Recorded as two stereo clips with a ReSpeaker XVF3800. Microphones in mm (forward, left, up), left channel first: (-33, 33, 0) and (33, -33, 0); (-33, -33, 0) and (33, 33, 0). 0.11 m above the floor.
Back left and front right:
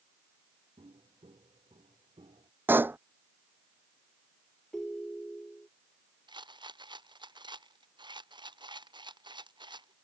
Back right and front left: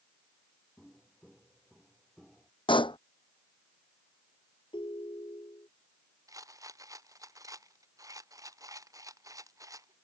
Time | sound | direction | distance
0.8 | footsteps | 50° right | ?
2.7 | a pop | 110° right | ?
4.7 | a ringtone | 140° right | ?
6.3 | a rattle | 10° right | ?